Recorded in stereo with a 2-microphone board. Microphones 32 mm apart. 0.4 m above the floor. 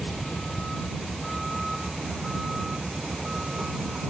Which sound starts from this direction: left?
A vehicle, at 0.0 s.